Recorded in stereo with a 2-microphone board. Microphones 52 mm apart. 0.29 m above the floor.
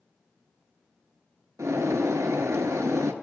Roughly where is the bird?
Right.